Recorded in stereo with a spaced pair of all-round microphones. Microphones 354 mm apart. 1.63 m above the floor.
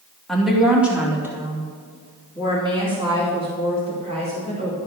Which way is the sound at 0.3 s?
Centre (ahead or behind).